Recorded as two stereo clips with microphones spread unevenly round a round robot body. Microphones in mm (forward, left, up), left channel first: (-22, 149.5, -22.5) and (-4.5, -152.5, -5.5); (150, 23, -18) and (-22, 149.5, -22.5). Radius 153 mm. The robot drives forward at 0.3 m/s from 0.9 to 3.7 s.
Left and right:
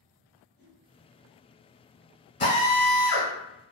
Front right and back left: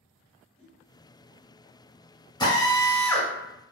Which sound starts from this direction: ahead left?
A drill, at 2.4 s.